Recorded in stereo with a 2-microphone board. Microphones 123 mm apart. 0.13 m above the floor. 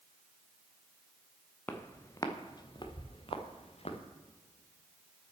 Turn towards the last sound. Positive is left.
turn(degrees=60)  # may be behind; listen again after turning